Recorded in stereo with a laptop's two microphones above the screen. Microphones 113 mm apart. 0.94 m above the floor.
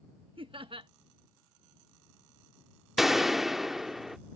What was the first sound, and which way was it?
Laughter, 50° right (ahead or behind).